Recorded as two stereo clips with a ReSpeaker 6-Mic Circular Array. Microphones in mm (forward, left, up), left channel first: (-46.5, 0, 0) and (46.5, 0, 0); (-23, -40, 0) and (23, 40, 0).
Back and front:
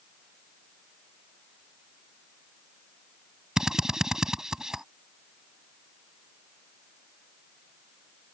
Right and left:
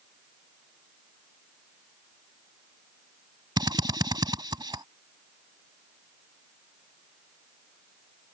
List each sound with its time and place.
3.6 s a drill: 80° left